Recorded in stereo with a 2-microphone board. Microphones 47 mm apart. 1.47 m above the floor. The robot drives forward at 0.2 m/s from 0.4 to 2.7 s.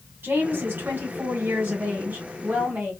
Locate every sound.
0.2 s a woman speaking: 60° right (ahead or behind), 1.3 m; by 2.9 s 45° right (ahead or behind), 1.6 m